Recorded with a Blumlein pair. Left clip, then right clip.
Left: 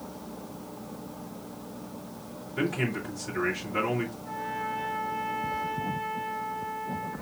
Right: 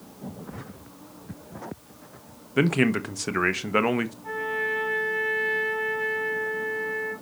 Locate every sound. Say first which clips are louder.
2.6 s a man speaking: right 7 dB; 55° right, 1.1 m
4.2 s a trumpet: right 5 dB; 40° right, 4.5 m